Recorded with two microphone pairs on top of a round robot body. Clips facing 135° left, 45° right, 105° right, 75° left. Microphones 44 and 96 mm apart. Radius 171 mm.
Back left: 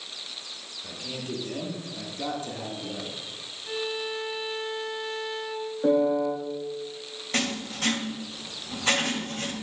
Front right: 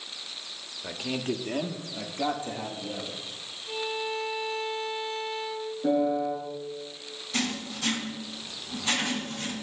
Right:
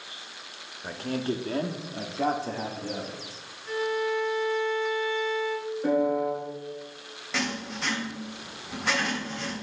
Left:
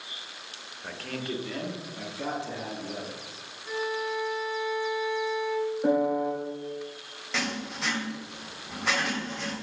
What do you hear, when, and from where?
0.8 s a man speaking: 40° right, 1.3 m; by 3.2 s 115° right, 2 m
3.7 s a violin: 155° left, 2 m
5.8 s a piano: 145° left, 2.5 m
7.3 s writing: 165° left, 2 m